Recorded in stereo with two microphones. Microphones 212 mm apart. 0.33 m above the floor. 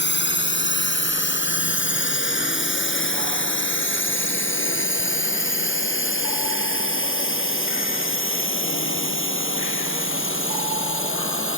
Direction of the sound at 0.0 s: 60° left (ahead or behind).